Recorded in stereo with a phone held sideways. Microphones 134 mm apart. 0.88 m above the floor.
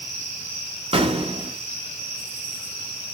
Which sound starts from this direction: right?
An explosion, at 0.9 s.